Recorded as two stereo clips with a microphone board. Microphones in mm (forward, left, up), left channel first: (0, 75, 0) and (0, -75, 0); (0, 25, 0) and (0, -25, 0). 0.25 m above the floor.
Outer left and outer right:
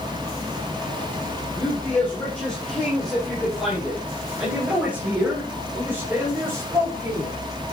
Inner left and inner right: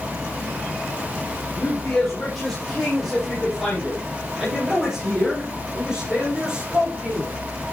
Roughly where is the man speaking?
Centre.